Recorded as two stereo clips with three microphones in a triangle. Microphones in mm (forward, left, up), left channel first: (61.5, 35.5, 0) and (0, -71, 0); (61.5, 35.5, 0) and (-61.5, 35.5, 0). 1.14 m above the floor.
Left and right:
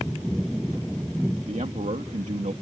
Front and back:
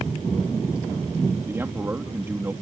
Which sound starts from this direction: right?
A man speaking, at 1.5 s.